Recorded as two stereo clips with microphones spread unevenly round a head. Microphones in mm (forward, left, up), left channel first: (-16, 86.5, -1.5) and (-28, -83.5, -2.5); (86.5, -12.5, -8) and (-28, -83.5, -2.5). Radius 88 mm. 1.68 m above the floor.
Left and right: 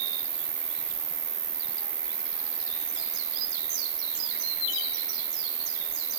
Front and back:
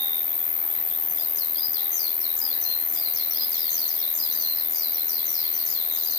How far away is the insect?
About 0.8 m.